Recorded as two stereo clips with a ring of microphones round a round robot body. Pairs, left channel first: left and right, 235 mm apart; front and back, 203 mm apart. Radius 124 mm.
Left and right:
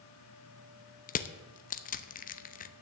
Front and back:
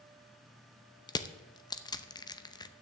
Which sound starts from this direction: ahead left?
Crushing, at 1.1 s.